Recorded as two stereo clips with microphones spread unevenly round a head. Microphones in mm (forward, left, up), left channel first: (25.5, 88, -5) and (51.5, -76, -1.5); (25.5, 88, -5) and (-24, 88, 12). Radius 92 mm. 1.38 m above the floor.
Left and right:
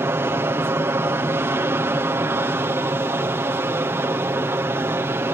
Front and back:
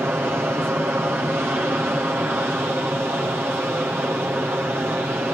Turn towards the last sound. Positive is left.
turn(degrees=-140)